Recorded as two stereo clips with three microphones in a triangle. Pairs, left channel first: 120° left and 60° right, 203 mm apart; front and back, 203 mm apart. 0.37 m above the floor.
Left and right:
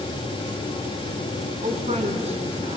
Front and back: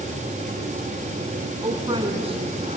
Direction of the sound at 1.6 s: 110° right.